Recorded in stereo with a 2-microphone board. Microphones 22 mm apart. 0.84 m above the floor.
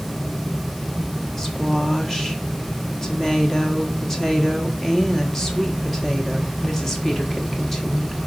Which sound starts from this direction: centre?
A woman speaking, at 1.4 s.